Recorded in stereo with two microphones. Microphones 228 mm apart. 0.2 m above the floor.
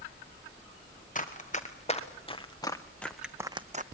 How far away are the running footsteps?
About 2.5 m.